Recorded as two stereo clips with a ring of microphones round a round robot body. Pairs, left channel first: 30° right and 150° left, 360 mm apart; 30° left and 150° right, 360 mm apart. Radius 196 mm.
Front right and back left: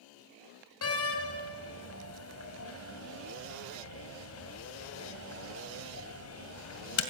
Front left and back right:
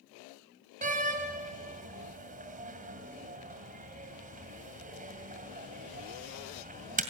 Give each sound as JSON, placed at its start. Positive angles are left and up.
{"t": 0.8, "sound": "a door slam", "azimuth_deg": -80, "distance_m": 2.0}